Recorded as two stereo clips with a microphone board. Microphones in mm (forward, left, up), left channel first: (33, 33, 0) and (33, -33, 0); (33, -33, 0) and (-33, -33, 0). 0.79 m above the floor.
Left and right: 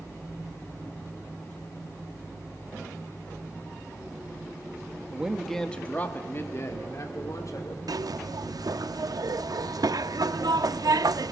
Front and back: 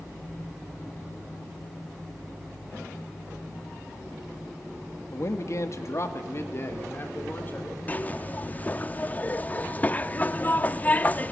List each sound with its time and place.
5.1 s a man speaking: 20° right, 1.5 m; by 7.8 s 60° left, 3.5 m
7.9 s a zipper: 65° right, 0.5 m